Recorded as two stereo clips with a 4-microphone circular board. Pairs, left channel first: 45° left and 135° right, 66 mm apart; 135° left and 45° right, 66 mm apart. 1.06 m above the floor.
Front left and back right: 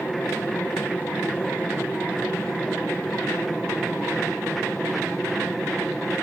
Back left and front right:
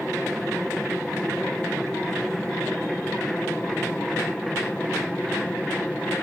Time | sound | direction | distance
0.0 | an aircraft | 55° left | ?